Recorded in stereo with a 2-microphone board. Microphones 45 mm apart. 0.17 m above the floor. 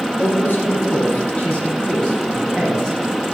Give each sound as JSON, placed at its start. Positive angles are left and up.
{"t": 0.2, "sound": "a man speaking", "side_deg": 50, "distance_m": 2.5}